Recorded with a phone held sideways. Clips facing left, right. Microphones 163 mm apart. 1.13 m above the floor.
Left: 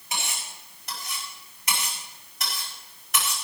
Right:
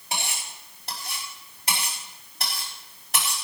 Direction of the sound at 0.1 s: 35° right (ahead or behind).